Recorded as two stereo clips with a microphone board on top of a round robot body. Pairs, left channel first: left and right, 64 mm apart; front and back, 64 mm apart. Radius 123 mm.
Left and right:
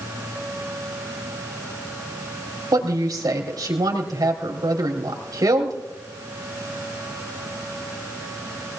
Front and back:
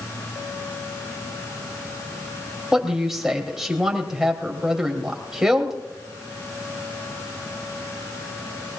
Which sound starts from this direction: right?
A woman speaking, at 2.7 s.